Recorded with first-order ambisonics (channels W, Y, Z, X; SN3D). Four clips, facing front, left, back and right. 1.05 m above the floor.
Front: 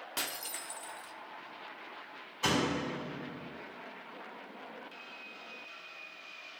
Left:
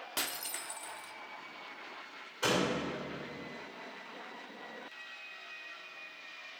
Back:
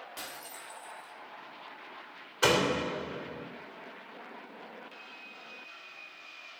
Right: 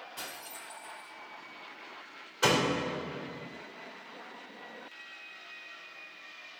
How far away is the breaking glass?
About 1.1 m.